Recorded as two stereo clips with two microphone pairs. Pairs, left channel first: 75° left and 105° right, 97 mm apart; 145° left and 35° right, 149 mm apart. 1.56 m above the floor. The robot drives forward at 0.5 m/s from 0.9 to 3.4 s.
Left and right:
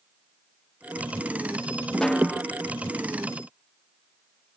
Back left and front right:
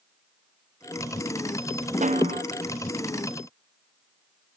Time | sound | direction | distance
2.0 | a snare drum | 5° right | 1.1 m